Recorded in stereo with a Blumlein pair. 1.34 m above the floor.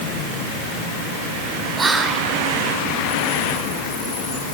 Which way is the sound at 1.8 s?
15° right.